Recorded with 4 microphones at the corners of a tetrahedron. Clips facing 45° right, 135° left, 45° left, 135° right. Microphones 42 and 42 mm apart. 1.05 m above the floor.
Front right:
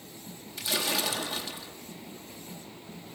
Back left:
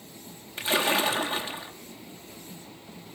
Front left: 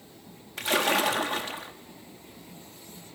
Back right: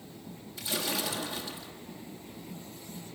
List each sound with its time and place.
0.6 s a splash: 80° left, 1.4 m